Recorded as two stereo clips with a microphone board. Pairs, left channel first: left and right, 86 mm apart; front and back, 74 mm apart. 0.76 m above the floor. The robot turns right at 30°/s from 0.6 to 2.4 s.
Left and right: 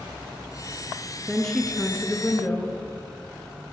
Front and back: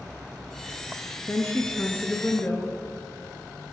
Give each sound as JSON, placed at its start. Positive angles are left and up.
{"t": 1.3, "sound": "a woman speaking", "azimuth_deg": 5, "distance_m": 0.7}